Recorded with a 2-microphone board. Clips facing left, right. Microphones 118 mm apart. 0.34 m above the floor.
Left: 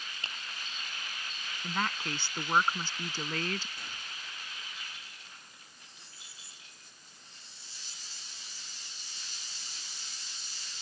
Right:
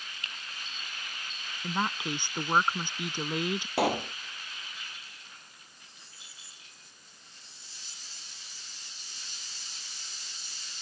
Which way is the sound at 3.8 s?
80° right.